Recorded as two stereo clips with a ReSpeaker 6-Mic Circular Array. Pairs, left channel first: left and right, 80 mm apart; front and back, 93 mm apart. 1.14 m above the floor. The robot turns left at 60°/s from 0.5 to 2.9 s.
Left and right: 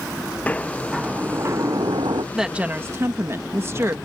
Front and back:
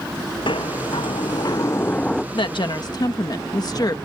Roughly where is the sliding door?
Ahead.